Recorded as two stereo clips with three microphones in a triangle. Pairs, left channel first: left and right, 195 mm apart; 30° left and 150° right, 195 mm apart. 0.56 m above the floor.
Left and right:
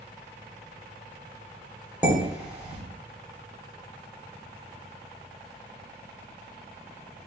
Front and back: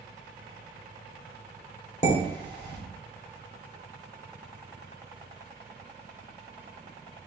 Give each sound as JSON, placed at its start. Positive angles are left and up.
{"t": 2.0, "sound": "dishes clattering", "azimuth_deg": -10, "distance_m": 1.5}